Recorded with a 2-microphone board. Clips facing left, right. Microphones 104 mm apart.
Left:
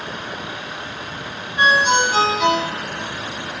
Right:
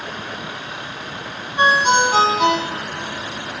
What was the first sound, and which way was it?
A ringtone, 35° right (ahead or behind).